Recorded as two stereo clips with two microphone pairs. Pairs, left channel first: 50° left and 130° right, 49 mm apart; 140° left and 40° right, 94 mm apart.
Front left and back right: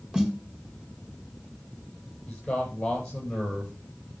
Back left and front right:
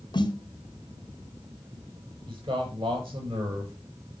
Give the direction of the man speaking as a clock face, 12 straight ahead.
1 o'clock.